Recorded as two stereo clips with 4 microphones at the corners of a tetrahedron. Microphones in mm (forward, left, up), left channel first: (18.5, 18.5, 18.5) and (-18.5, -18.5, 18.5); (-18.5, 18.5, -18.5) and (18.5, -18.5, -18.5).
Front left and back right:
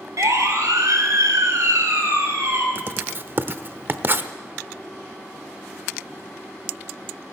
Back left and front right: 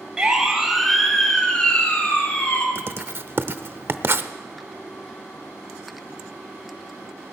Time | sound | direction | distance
0.2 | a siren | 120° right | 3.5 m
2.8 | writing | 85° right | 0.7 m